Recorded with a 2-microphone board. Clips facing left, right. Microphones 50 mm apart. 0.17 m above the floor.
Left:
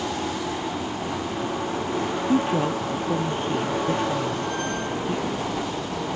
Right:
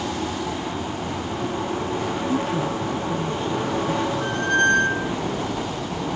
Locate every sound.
2.3 s a woman speaking: 30° left (ahead or behind); by 5.2 s 45° left (ahead or behind)
4.2 s a squeak: 60° right (ahead or behind)